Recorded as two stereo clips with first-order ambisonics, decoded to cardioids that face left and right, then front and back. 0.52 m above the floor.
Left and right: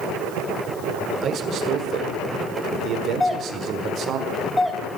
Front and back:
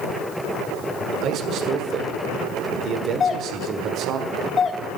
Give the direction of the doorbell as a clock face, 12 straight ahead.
11 o'clock.